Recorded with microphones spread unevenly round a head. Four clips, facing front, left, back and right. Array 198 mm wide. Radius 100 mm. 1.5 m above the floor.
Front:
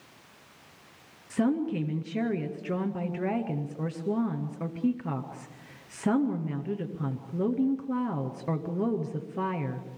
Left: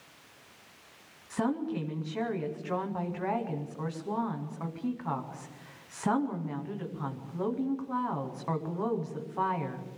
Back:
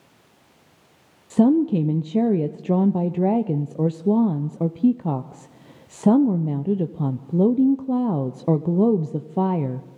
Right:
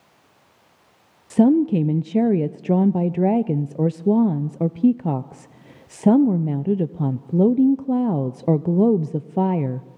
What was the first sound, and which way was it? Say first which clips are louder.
A woman speaking: right 15 dB, back 10 dB; 120° right.